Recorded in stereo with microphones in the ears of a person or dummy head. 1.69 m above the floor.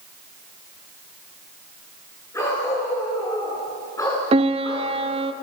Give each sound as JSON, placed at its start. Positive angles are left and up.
{"t": 2.3, "sound": "a dog barking", "side_deg": 15, "distance_m": 9.5}
{"t": 4.3, "sound": "a piano", "side_deg": -35, "distance_m": 0.9}